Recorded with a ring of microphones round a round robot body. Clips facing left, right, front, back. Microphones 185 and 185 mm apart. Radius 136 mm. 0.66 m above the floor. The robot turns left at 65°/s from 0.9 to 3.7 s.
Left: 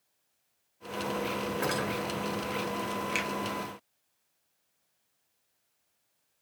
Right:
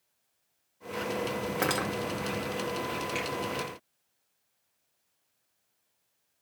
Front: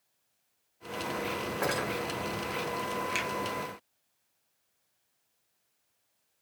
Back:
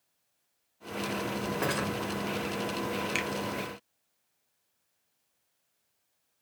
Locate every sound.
1.6 s cutlery clinking: 105° right, 0.8 m; by 1.9 s 125° right, 0.8 m
3.1 s a finger snap: 115° left, 0.8 m; by 3.3 s 105° left, 0.8 m